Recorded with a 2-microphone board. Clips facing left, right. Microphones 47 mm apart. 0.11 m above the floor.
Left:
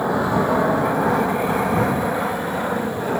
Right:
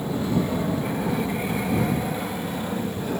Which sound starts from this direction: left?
An aircraft, at 0.0 s.